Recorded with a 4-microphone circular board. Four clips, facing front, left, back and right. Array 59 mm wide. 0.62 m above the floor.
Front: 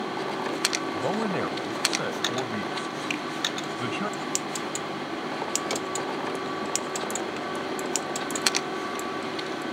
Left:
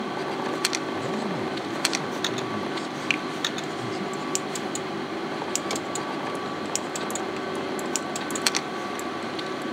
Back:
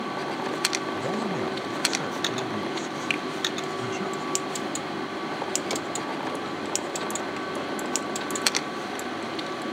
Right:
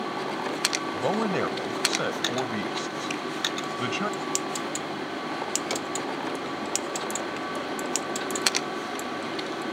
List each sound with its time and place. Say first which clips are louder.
0.9 s a man speaking: right 2 dB, front 1 dB; 70° right
3.1 s a finger snap: left 5 dB, back 4 dB; 110° left